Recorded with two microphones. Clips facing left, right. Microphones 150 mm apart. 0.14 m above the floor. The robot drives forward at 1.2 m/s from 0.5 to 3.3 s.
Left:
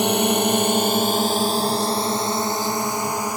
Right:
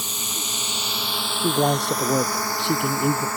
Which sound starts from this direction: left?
A drone, at 0.0 s.